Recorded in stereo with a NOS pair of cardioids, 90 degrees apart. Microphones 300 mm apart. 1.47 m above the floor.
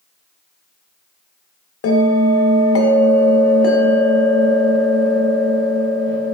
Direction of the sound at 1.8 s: 45° left.